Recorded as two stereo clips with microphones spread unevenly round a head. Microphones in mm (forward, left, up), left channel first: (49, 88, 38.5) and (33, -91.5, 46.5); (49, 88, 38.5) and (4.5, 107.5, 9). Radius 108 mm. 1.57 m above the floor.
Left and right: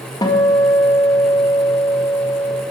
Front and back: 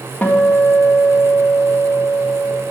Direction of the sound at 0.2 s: 15° left.